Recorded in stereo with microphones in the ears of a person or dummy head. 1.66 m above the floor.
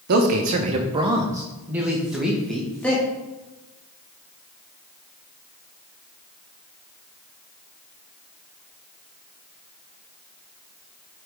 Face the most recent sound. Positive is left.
turn(degrees=5)  # may be behind; listen again after turning